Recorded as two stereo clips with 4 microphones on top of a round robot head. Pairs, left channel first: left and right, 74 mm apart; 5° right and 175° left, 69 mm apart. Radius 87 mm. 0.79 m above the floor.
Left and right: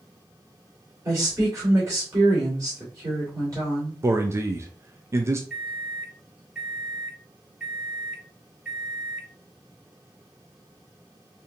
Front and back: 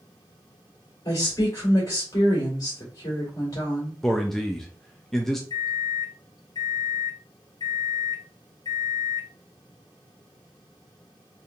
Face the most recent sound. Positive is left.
turn(degrees=-10)